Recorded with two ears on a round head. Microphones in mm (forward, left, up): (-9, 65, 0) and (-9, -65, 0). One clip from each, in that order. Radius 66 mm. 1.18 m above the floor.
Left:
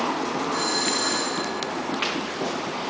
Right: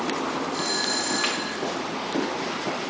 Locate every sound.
0.5 s a doorbell: 35° left (ahead or behind), 6 m